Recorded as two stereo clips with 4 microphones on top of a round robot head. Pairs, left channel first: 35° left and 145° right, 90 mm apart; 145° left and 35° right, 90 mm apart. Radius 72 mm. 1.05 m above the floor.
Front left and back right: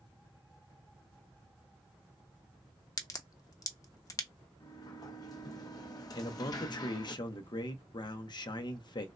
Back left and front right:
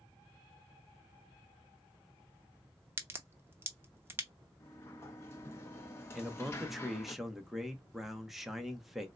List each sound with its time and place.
3.0 s a crack: 15° left, 0.8 m
4.6 s a sliding door: 80° left, 0.7 m
6.2 s a man speaking: 50° left, 0.7 m